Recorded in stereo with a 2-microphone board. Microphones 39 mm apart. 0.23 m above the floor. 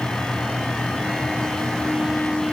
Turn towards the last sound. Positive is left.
No sound to turn to.